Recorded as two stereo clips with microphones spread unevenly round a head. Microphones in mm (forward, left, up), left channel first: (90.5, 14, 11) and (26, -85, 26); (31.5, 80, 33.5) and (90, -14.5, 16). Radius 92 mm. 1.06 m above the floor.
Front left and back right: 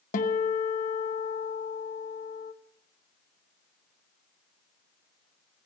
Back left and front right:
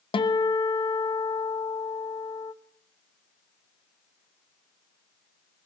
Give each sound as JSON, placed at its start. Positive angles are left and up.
{"t": 0.1, "sound": "a guitar", "azimuth_deg": 80, "distance_m": 1.0}